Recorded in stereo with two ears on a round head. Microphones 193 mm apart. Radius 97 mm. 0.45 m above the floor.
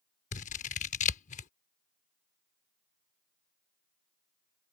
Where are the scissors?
35° left (ahead or behind).